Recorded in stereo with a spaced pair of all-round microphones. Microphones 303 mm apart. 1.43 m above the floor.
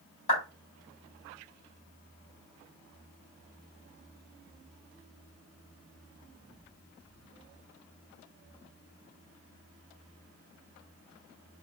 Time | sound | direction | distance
0.3 | a clap | 75° left (ahead or behind) | 2.5 m